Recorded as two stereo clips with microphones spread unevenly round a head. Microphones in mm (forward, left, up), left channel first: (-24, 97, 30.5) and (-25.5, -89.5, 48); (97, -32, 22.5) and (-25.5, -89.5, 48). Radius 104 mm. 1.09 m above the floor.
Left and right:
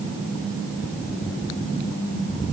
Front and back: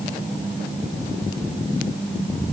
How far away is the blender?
I don't hear a blender.